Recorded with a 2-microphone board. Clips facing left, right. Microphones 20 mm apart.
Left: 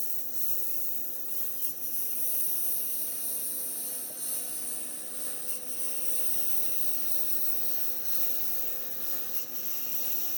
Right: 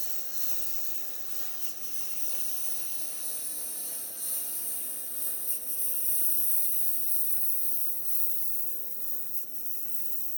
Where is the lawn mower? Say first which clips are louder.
Right 3 dB; 25° right (ahead or behind); by 10.4 s 50° left (ahead or behind).